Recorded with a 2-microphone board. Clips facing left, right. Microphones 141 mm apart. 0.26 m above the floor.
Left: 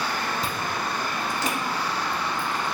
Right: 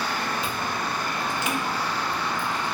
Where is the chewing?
40° left (ahead or behind), 0.6 m.